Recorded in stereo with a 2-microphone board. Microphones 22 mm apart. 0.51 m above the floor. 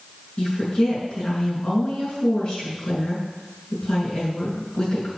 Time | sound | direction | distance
0.4 | a woman speaking | 40° left (ahead or behind) | 6 m